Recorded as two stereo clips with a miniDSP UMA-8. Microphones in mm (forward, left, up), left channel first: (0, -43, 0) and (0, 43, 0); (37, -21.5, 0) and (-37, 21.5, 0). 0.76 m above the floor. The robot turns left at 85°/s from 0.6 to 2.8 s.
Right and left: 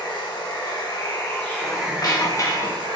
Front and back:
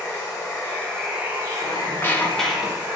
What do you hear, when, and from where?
0.0 s running water: 85° right, 1.2 m; by 3.0 s 90° left, 1.2 m
1.6 s a squeak: 45° right, 0.6 m; by 3.0 s 145° right, 0.6 m